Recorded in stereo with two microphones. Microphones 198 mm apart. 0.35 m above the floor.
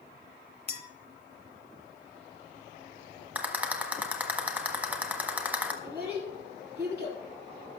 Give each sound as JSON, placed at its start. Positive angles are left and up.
{"t": 0.7, "sound": "a clink", "side_deg": 55, "distance_m": 1.2}
{"t": 3.4, "sound": "a rattle", "side_deg": -5, "distance_m": 1.4}
{"t": 5.8, "sound": "a child speaking", "side_deg": -55, "distance_m": 6.0}